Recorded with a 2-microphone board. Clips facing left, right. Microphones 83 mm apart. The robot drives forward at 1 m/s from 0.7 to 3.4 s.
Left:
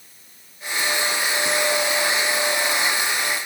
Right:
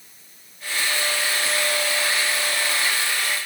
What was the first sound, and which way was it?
Only background noise.